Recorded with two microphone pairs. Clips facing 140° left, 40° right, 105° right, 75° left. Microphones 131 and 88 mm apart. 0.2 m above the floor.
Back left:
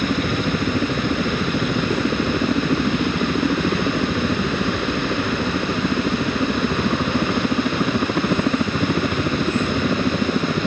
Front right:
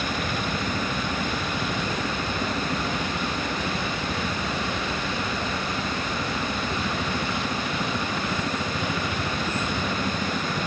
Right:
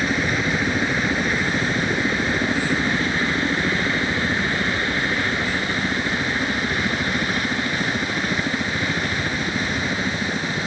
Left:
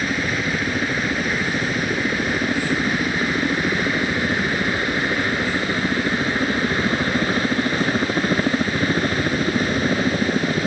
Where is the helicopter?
165° left; by 10.7 s 110° left.